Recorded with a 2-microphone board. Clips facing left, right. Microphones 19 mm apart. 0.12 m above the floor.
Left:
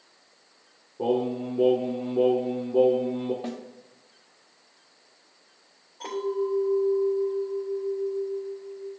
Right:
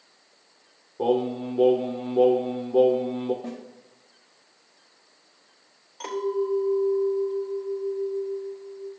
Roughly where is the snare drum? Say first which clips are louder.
Left 1 dB; left.